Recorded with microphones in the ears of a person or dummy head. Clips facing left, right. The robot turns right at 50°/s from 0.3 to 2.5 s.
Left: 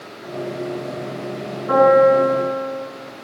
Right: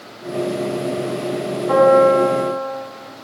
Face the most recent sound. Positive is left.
turn(degrees=105)